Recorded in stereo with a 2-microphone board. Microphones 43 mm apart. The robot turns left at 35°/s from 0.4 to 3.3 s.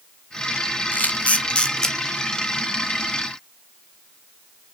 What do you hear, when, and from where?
0.9 s a camera shutter: 45° left (ahead or behind), 0.5 m; by 2.0 s 15° left (ahead or behind), 0.5 m